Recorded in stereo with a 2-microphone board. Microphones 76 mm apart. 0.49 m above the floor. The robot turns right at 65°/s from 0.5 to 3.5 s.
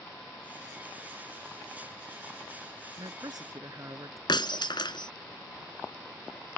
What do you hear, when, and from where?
3.0 s a man speaking: 85° right; by 4.2 s 50° right
4.3 s breaking glass: 85° left